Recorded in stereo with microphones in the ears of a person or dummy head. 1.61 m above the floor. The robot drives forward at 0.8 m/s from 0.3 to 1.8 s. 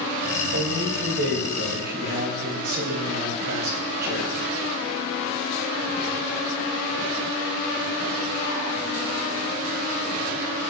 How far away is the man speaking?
About 3 m.